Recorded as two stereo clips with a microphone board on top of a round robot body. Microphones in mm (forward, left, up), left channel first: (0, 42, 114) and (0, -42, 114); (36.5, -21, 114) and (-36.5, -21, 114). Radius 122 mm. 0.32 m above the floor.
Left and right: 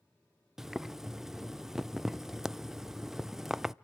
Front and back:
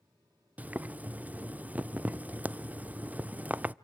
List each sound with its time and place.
0.6 s boiling: 170° right, 0.5 m